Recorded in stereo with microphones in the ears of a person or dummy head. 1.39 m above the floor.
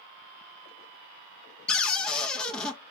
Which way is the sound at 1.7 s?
10° left (ahead or behind).